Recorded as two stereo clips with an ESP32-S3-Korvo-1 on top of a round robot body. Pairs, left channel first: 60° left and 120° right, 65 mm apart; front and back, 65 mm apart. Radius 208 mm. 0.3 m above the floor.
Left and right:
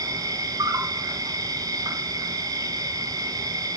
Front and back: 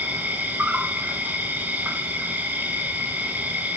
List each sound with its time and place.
0.0 s an insect: 115° right, 3.5 m